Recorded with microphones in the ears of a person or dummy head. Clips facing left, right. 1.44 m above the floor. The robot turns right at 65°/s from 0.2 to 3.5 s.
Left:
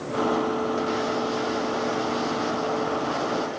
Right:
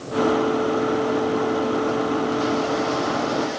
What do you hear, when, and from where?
Only background noise.